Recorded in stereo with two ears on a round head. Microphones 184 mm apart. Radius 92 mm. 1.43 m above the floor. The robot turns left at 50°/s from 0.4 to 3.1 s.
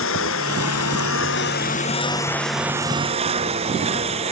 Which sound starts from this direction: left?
A lawn mower, at 0.0 s.